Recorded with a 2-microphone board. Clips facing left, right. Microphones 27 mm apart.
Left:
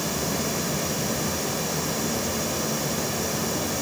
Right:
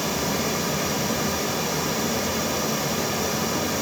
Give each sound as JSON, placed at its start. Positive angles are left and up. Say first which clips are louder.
{"t": 0.0, "sound": "running water", "louder": "right 2 dB", "side_deg": -15, "distance_m": 1.0}